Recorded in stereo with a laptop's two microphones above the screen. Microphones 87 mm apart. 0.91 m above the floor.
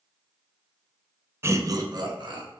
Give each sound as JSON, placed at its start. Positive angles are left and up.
{"t": 1.4, "sound": "laughter", "side_deg": -30, "distance_m": 0.6}